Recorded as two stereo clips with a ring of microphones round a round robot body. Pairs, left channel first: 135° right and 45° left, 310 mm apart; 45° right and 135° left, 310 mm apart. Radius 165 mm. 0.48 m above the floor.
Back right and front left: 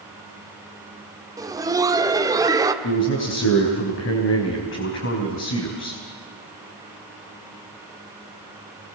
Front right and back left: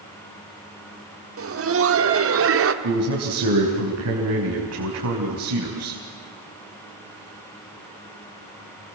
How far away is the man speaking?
About 4.5 m.